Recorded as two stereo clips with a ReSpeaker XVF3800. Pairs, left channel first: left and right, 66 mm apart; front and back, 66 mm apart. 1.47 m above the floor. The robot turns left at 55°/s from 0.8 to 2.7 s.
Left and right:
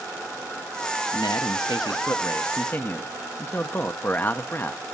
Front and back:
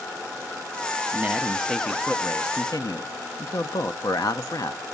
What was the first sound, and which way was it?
A man speaking, 120° left.